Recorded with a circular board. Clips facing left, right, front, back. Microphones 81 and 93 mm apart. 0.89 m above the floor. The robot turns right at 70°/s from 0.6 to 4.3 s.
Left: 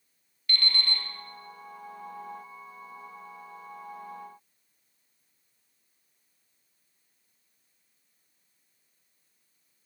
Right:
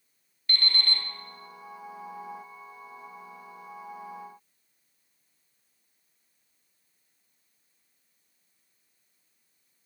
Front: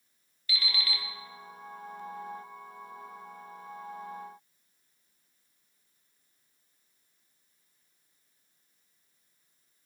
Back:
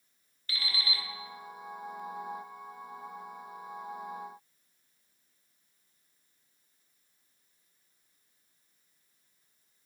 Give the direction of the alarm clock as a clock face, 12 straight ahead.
5 o'clock.